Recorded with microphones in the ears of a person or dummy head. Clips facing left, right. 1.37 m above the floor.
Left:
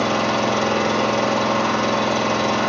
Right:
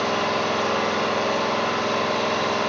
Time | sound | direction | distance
0.0 | an engine running | 45° left (ahead or behind) | 1.1 m